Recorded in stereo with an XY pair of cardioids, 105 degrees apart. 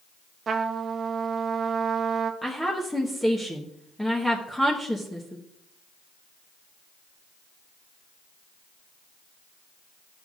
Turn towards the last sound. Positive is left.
turn(degrees=10)